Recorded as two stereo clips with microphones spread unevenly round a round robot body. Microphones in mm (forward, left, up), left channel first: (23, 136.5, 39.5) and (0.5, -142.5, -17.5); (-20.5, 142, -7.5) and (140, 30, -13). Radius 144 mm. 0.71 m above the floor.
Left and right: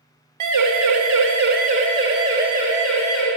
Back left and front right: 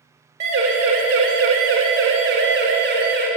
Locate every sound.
0.4 s a siren: 90° right, 2 m; by 3.3 s 5° right, 4 m